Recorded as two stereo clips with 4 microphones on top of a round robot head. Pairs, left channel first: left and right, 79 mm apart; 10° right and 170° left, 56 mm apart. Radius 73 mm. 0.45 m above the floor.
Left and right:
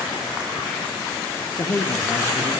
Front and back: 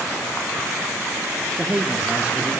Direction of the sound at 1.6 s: 110° left.